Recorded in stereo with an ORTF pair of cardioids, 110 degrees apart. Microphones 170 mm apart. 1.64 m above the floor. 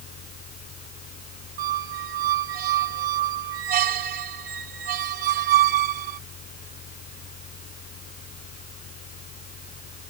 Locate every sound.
0.0 s a fan: 60° left
1.6 s a squeak: 70° right